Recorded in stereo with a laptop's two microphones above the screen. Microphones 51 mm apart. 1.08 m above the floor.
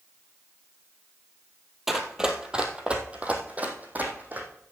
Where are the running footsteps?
10° right (ahead or behind), 1.7 m; by 4.5 s 35° right (ahead or behind), 3 m.